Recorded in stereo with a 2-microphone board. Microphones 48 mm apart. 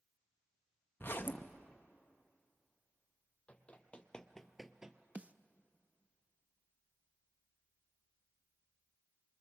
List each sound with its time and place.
1.0 s a zipper: 50° left (ahead or behind), 0.8 m
3.5 s running footsteps: 25° left (ahead or behind), 1.7 m; by 5.0 s 20° right (ahead or behind), 1.1 m
5.2 s a snare drum: 25° right (ahead or behind), 0.5 m